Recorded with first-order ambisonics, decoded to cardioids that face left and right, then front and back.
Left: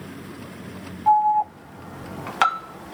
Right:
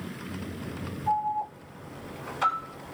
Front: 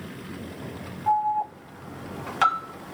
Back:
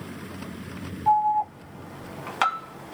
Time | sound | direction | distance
1.1 | an alarm | 100° left | 1.2 m